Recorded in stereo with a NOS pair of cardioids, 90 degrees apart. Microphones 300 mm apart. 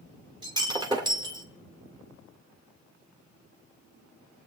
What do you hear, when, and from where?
0.4 s breaking glass: 15° right, 2.5 m